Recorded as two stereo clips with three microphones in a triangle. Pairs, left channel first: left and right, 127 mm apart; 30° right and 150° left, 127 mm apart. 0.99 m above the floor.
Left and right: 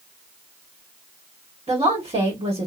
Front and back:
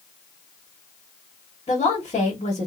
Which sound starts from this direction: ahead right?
A woman speaking, at 1.7 s.